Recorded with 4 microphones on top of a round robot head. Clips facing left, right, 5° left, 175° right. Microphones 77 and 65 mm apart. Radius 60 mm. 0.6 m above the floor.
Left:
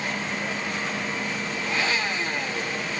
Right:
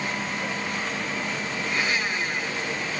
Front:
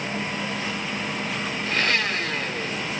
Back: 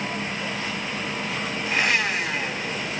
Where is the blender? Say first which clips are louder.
Even, back 1 dB; 105° left, 1.7 m.